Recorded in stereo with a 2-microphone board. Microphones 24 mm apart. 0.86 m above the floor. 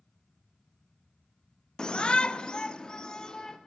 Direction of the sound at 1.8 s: 25° left (ahead or behind).